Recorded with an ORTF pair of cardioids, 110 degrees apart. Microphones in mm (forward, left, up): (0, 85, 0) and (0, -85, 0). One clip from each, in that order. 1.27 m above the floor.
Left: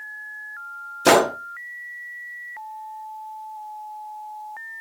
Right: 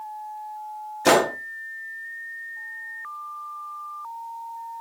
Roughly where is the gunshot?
Ahead.